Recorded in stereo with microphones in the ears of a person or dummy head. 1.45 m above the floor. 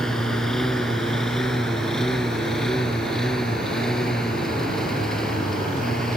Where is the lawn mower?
5° left (ahead or behind).